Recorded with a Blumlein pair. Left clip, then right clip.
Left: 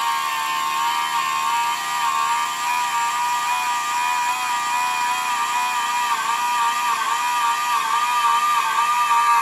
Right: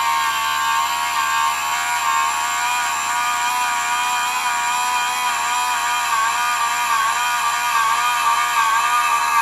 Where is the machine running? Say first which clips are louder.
Right 3 dB; 65° right, 1.0 m.